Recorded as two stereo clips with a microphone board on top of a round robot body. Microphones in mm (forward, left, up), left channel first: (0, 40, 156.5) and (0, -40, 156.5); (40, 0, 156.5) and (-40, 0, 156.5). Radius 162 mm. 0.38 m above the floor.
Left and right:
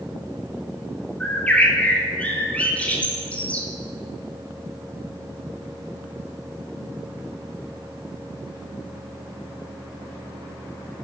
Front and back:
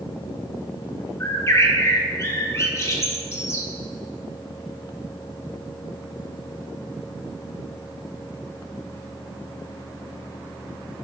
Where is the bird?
25° left, 1.2 m.